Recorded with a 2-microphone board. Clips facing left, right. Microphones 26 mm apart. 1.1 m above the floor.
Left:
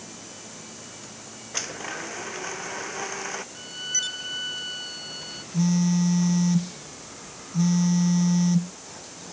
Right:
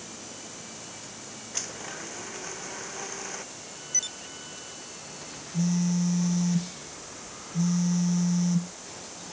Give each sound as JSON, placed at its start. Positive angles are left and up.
{"t": 1.5, "sound": "a blender", "side_deg": 25}
{"t": 3.5, "sound": "a violin", "side_deg": 55}
{"t": 5.5, "sound": "a phone buzzing", "side_deg": 30}